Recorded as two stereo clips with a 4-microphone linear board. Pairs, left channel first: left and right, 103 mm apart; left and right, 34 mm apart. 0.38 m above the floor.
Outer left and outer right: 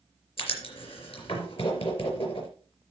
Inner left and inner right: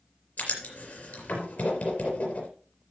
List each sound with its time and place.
0.4 s writing: 60° left (ahead or behind), 4 m